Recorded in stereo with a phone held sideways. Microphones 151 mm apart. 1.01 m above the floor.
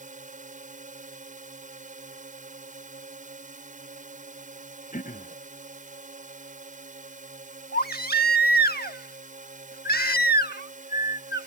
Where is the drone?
55° right (ahead or behind).